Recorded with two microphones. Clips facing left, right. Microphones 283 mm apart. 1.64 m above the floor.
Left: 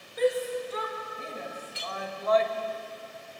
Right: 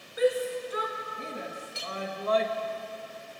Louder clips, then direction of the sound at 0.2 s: Even; 5° right (ahead or behind).